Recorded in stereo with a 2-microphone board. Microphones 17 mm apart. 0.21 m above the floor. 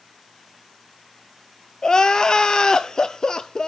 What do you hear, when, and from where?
1.8 s crying: 35° left (ahead or behind), 0.7 m